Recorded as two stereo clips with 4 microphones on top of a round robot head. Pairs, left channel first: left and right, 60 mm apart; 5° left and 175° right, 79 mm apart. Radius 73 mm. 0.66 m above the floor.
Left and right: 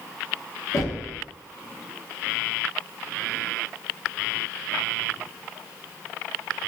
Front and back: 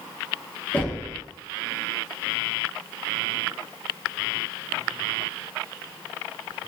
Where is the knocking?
70° left, 0.9 m.